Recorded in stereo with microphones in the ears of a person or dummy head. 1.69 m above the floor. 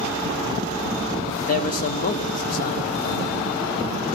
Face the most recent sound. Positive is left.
turn(degrees=40)  # may be behind; listen again after turning